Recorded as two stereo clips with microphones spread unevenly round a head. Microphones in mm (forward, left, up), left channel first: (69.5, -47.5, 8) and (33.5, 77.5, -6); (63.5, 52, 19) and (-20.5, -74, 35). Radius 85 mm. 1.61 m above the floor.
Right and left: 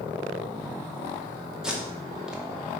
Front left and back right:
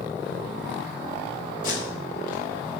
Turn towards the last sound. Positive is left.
turn(degrees=20)